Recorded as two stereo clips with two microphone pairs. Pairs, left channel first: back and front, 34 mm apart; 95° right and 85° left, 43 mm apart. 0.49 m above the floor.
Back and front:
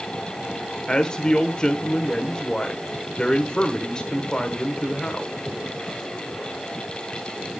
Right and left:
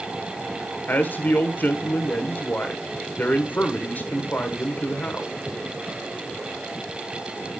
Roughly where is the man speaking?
Behind right.